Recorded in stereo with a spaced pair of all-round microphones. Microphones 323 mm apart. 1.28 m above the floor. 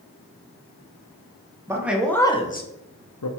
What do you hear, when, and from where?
1.7 s a man speaking: 10° right (ahead or behind), 0.8 m; by 3.3 s 70° left (ahead or behind), 0.6 m